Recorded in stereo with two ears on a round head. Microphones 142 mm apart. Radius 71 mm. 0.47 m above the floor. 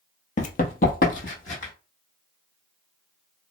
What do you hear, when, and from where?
0.4 s running footsteps: 50° left (ahead or behind), 0.6 m